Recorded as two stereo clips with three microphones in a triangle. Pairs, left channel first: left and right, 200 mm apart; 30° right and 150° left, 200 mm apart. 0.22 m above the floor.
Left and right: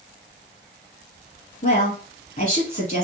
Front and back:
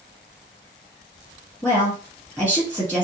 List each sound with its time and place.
1.6 s a woman speaking: 50° left, 2.5 m